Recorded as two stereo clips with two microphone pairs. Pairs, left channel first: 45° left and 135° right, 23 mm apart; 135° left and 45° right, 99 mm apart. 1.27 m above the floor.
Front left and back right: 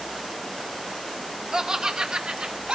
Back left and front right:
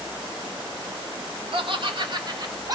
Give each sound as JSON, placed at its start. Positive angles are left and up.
{"t": 1.5, "sound": "laughter", "azimuth_deg": -70, "distance_m": 1.1}